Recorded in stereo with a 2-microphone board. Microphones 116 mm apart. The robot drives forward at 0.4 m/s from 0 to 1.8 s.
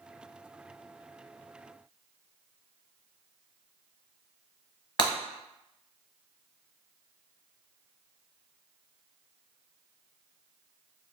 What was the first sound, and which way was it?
Breaking glass, 45° left (ahead or behind).